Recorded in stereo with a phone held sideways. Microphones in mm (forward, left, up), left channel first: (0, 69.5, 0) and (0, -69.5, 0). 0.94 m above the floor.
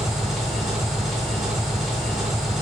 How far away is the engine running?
About 3 m.